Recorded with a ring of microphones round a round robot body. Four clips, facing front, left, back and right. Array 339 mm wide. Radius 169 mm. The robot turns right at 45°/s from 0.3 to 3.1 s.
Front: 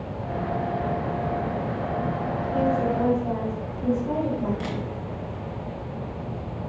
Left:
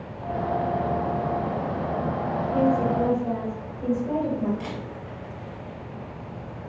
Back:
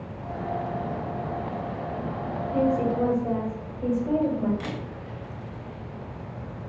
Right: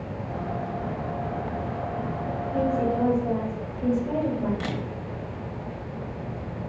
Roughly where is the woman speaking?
Behind.